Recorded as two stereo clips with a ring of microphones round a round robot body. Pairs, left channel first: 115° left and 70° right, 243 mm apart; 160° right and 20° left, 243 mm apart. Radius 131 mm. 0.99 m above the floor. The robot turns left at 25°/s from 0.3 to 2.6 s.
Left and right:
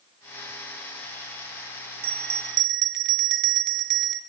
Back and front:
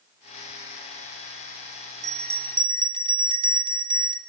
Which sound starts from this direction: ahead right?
A bell, at 2.0 s.